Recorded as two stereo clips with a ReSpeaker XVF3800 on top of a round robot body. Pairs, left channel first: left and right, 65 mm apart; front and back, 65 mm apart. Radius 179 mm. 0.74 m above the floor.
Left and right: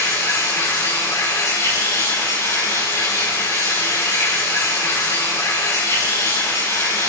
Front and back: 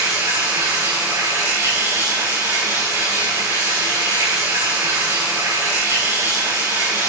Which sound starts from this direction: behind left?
Running water, at 0.0 s.